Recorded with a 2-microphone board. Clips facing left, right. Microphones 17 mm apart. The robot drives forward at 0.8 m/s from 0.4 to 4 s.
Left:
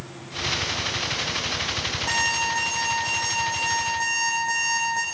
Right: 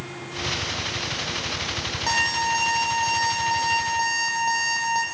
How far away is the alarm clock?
About 9.5 m.